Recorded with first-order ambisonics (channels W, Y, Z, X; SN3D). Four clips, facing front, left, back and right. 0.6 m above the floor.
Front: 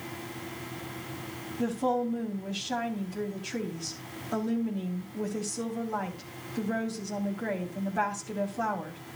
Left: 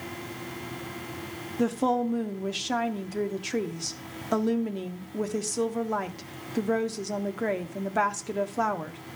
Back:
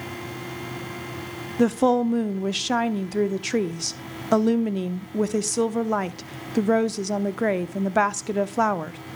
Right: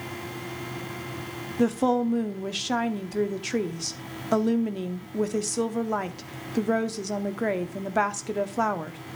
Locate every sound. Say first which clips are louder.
1.6 s a woman speaking: right 2 dB, back 9 dB; 170° right, 0.8 m